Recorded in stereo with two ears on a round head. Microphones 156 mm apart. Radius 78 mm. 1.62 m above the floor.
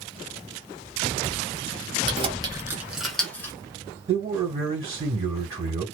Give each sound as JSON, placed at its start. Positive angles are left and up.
{"t": 2.1, "sound": "keys jangling", "side_deg": -35, "distance_m": 0.9}
{"t": 4.1, "sound": "a man speaking", "side_deg": -20, "distance_m": 1.4}